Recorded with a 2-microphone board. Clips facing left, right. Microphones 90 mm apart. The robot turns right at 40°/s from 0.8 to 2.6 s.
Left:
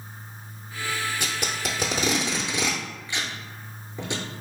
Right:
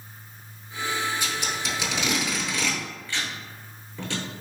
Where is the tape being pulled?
70° left (ahead or behind), 0.6 m; by 4.2 s 20° left (ahead or behind), 0.6 m.